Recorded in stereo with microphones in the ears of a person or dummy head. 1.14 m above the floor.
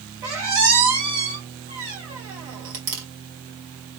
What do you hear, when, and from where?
0.2 s a squeak: 50° right (ahead or behind), 1.9 m